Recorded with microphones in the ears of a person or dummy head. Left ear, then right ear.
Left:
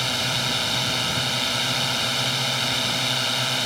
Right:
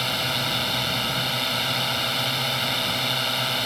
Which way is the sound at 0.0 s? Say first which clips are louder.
Left 1 dB; 5° right (ahead or behind).